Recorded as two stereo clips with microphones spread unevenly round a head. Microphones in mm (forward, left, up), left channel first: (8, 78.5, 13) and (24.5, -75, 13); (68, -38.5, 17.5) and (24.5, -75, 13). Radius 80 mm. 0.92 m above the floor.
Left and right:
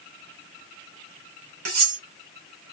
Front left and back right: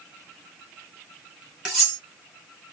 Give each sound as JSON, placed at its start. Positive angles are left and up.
{"t": 1.6, "sound": "cutlery clinking", "azimuth_deg": -60, "distance_m": 4.0}